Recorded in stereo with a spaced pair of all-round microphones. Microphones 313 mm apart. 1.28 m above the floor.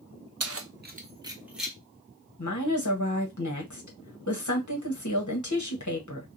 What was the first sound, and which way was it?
Keys jangling, 55° right (ahead or behind).